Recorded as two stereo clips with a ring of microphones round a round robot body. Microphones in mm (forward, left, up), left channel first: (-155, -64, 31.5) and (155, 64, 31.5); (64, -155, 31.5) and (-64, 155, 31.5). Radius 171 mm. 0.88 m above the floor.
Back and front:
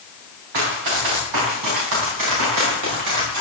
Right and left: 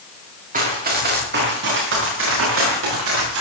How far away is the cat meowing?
No cat meowing in this recording.